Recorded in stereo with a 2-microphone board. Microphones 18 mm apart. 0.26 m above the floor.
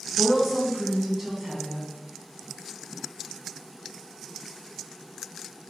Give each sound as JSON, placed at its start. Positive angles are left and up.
{"t": 0.2, "sound": "a woman speaking", "side_deg": -20, "distance_m": 2.5}